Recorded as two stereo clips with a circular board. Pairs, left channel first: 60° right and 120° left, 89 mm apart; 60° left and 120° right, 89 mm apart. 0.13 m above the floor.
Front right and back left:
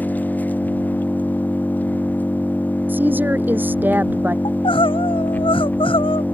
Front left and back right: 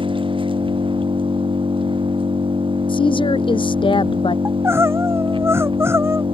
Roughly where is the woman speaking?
Ahead left.